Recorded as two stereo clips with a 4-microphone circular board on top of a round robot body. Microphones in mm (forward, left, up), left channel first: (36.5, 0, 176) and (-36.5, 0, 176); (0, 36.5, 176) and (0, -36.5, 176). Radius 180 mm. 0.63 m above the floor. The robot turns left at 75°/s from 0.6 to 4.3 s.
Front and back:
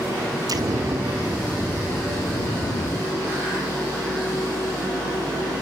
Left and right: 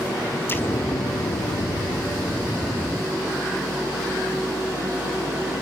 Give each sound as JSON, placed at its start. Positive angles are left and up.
{"t": 0.5, "sound": "an explosion", "azimuth_deg": 150, "distance_m": 2.0}